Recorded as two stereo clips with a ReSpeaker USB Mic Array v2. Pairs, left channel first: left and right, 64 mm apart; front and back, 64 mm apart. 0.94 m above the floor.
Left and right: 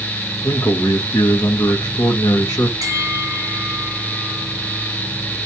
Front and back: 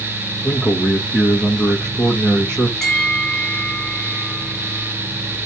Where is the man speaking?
65° left, 1.1 m.